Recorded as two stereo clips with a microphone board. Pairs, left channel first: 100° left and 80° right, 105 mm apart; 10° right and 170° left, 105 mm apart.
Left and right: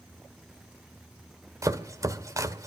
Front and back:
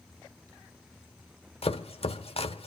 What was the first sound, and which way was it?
Chopping, 20° right.